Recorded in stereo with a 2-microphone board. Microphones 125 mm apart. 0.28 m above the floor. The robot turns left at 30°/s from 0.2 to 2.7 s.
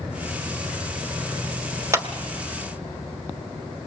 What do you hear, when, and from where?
1.9 s a clap: 20° right (ahead or behind), 1.1 m